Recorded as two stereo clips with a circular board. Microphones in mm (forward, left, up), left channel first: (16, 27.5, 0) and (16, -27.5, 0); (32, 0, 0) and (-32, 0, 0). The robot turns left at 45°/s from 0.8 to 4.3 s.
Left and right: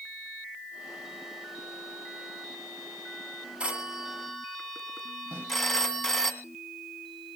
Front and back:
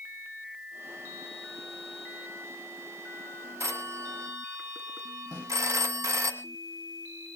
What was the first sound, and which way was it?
A phone ringing, 155° right.